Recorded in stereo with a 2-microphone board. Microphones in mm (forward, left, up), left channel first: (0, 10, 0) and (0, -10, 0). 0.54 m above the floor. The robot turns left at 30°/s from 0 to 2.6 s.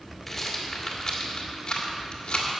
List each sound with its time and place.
0.3 s a rattle: 10° left (ahead or behind), 1.9 m; by 2.5 s 50° left (ahead or behind), 1.9 m